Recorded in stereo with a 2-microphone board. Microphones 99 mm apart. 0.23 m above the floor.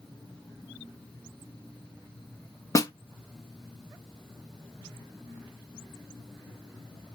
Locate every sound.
2.8 s a snare drum: 35° left (ahead or behind), 0.7 m